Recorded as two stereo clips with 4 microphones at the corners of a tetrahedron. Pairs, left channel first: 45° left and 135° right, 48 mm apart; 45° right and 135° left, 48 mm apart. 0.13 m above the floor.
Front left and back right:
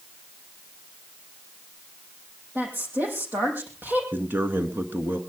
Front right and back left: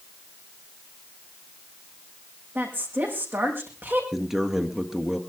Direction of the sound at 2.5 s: 175° left.